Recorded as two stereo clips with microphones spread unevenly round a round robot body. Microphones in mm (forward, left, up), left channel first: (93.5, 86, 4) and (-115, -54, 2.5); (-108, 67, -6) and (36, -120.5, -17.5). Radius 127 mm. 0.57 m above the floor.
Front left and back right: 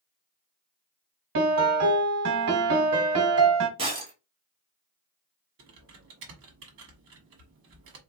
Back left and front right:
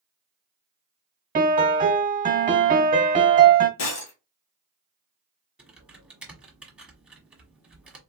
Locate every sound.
1.4 s a piano: 110° right, 1.2 m
3.8 s breaking glass: 145° left, 1.7 m
5.6 s typing on a keyboard: 135° right, 1.3 m